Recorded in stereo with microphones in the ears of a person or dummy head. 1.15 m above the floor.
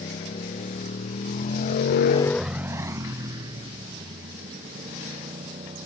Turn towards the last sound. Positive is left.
turn(degrees=-30)  # may be behind; listen again after turning